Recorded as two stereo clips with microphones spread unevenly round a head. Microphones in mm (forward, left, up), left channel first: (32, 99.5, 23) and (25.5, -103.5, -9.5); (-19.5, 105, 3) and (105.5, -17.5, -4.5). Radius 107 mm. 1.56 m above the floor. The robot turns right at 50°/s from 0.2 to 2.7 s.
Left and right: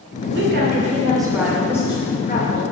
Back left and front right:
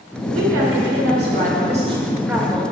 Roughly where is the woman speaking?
Ahead right.